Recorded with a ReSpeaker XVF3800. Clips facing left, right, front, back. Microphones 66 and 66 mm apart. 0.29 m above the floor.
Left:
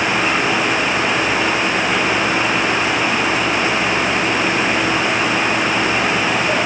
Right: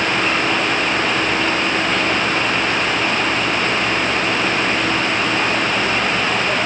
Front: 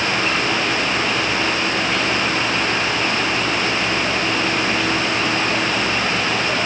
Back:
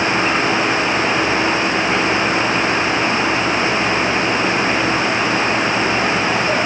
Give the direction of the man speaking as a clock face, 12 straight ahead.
No man speaking in this recording.